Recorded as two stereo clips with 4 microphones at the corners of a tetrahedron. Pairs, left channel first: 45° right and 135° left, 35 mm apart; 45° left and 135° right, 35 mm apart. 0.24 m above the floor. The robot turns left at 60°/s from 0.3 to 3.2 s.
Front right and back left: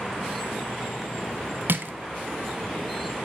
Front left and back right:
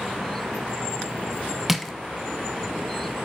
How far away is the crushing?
About 0.6 m.